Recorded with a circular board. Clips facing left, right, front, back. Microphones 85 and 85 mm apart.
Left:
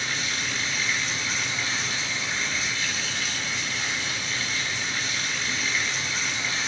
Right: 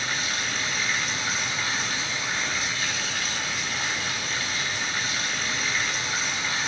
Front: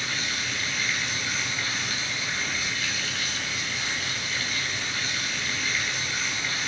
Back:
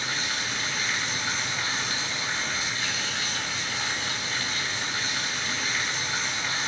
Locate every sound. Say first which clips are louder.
0.0 s running water: right 1 dB, back 1 dB; 120° right, 1.7 m